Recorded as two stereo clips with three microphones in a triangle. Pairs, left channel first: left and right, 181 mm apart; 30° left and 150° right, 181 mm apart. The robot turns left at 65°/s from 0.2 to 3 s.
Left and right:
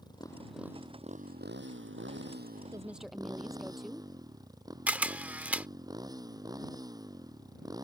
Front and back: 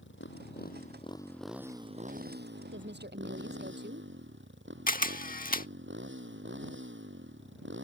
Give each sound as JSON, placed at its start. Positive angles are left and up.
{"t": 0.0, "sound": "a motorcycle", "azimuth_deg": 20}
{"t": 2.7, "sound": "a woman speaking", "azimuth_deg": -160}
{"t": 4.9, "sound": "a camera shutter", "azimuth_deg": -10}